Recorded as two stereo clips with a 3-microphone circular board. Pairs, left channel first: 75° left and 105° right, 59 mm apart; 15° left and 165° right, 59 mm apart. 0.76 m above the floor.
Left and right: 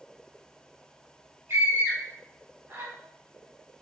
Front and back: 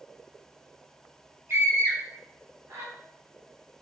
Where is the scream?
130° right, 1.7 m.